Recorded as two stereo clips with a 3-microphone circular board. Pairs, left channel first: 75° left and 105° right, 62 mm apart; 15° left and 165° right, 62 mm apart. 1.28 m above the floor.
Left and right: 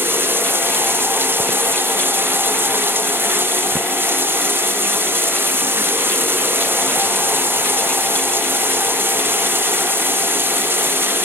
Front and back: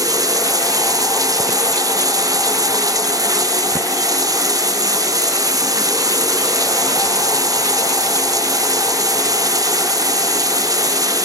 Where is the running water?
160° right, 0.8 m.